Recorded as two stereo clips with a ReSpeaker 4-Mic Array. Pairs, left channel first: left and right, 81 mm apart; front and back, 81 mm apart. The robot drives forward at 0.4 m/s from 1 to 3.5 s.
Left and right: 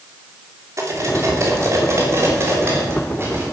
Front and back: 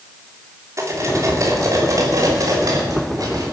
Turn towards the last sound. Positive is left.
turn(degrees=-145)